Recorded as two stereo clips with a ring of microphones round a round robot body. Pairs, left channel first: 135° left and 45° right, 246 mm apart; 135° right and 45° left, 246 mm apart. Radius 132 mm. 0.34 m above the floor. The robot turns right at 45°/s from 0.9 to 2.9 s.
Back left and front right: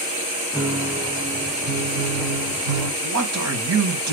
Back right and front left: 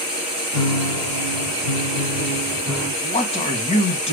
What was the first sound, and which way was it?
A piano, 135° right.